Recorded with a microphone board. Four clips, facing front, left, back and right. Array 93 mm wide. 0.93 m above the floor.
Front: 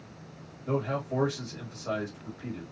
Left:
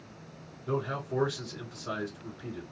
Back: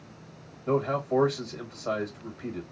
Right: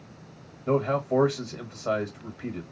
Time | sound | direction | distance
0.7 | a man speaking | 110° right | 1.2 m